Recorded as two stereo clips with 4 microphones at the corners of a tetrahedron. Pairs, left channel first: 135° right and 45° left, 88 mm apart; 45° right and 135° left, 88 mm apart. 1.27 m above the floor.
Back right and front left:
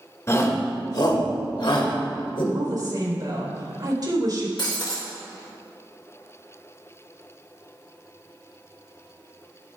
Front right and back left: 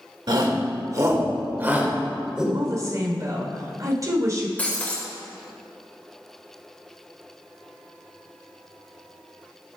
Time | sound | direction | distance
0.3 | a shout | 170° left | 2 m
2.5 | a woman speaking | 85° left | 3.5 m
4.6 | breaking glass | 115° right | 1.9 m